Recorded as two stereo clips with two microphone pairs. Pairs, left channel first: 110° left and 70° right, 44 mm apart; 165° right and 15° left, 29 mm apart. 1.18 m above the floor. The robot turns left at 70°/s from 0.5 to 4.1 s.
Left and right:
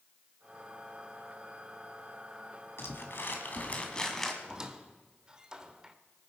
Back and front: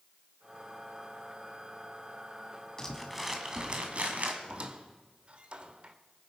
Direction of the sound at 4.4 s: Straight ahead.